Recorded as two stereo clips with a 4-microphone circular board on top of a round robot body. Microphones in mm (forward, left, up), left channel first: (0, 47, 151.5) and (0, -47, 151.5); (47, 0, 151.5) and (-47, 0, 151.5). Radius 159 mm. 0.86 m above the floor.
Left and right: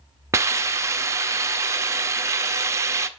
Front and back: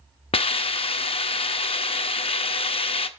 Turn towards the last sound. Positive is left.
turn(degrees=-25)